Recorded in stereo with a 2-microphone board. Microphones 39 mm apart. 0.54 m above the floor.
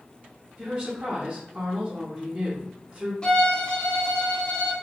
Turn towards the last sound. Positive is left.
turn(degrees=25)  # may be behind; listen again after turning